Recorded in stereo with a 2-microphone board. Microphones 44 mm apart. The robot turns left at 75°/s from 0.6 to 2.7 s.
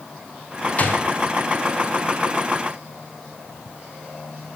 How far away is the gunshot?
About 0.9 m.